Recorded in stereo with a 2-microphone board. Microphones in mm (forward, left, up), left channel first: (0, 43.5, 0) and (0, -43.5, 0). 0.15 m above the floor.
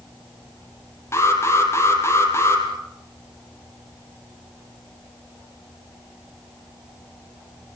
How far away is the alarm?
About 4 m.